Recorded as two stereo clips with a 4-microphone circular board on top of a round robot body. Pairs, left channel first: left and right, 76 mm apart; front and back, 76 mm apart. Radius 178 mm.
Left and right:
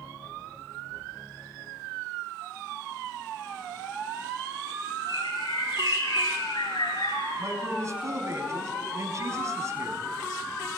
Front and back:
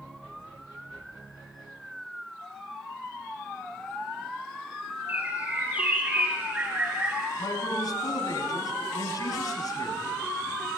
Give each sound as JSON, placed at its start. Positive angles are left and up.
{"t": 5.1, "sound": "a bird", "azimuth_deg": 110, "distance_m": 5.5}
{"t": 7.4, "sound": "a man speaking", "azimuth_deg": -40, "distance_m": 5.0}